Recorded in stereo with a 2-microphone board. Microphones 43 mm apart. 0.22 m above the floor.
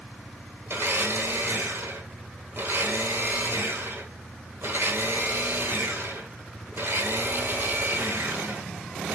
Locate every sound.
0.7 s a blender: 60° right (ahead or behind), 1.1 m